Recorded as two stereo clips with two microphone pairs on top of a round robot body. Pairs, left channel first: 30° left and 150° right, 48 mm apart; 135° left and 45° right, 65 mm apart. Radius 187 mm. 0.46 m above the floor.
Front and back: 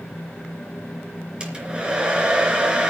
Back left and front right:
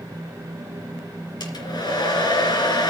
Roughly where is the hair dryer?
Behind left.